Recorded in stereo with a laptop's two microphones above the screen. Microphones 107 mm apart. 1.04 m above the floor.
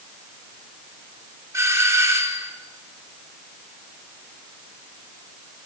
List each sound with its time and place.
1.5 s a doorbell: 25° right (ahead or behind), 4 m